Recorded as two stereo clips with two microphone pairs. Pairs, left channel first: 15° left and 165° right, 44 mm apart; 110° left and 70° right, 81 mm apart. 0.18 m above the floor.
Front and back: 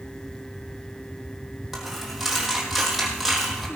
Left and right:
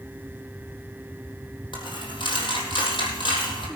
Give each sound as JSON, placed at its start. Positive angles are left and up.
{"t": 1.7, "sound": "a dropped coin", "azimuth_deg": 110, "distance_m": 3.5}